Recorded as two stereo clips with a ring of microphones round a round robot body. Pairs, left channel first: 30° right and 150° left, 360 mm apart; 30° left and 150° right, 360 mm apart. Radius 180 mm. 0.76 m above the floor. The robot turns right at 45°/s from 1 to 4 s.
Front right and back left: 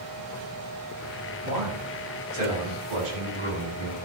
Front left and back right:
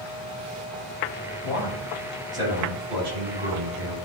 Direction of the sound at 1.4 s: 90° left.